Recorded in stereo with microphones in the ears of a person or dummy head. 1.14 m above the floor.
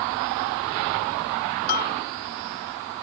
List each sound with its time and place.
1.7 s a bell: 55° left (ahead or behind)